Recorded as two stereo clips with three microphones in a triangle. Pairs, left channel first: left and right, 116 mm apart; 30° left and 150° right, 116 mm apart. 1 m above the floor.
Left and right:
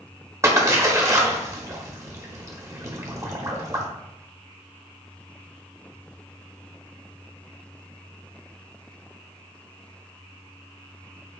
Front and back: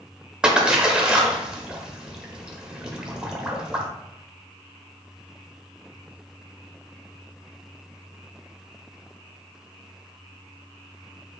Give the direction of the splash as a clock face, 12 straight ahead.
3 o'clock.